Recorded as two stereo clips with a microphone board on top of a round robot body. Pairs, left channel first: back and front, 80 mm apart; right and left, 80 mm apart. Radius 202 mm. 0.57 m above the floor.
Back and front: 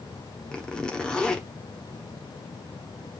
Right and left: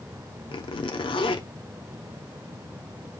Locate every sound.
0.5 s a zipper: 100° right, 1.1 m